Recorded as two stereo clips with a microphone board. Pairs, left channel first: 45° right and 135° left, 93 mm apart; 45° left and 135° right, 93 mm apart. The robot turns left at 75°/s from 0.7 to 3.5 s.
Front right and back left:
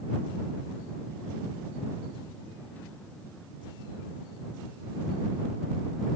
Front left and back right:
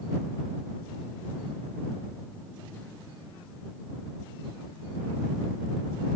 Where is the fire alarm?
No fire alarm in this recording.